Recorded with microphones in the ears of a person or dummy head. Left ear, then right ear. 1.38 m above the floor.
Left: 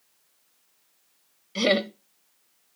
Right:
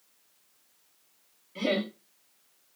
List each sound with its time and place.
1.6 s laughter: 70° left (ahead or behind), 0.6 m